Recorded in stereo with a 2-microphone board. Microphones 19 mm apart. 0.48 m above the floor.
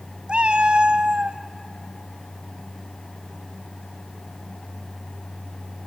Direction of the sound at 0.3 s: 85° right.